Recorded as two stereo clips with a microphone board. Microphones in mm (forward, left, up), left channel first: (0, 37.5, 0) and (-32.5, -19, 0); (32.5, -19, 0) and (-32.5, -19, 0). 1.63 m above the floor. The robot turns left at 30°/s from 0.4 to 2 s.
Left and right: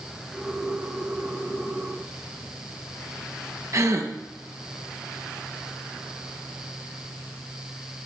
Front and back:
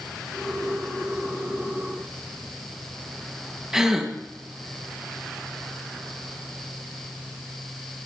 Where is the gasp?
100° right, 1.0 m.